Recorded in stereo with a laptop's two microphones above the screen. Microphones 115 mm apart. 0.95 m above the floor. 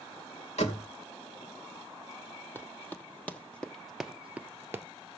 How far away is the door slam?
About 2.5 m.